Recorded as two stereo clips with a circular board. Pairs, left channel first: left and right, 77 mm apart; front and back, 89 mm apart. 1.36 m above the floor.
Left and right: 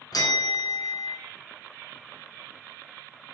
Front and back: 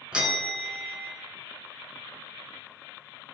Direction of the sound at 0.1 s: 105° left.